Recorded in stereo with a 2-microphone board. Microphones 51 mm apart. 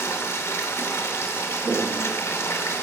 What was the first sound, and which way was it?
Running water, 60° left (ahead or behind).